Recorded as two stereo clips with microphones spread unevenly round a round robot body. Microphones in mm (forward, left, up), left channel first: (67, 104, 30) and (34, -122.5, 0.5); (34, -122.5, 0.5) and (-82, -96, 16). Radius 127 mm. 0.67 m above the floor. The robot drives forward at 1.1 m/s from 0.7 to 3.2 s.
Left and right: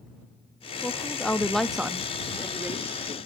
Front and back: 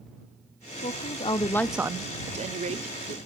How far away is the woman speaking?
About 1.1 m.